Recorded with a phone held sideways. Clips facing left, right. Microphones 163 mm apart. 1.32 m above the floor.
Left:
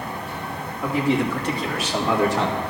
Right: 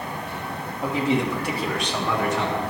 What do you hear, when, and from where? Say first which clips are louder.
0.8 s a man speaking: left 1 dB; 25° right (ahead or behind), 2.5 m; by 2.6 s 45° left (ahead or behind), 1.6 m